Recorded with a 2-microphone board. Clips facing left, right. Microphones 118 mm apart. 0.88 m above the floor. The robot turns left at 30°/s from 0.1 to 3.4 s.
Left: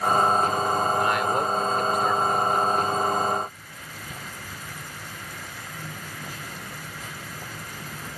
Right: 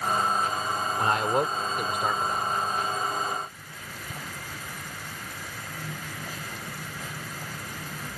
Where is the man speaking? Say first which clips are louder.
Left 1 dB; 145° right; by 2.6 s 165° left.